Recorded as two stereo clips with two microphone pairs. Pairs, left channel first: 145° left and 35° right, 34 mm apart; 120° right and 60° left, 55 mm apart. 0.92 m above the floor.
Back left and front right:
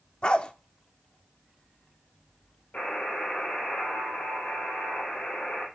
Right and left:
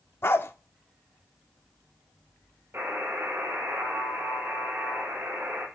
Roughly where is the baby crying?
I don't hear a baby crying.